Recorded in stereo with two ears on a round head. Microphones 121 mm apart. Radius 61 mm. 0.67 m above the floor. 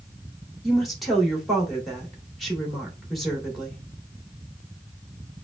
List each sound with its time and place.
0.6 s a woman speaking: centre (ahead or behind), 2 m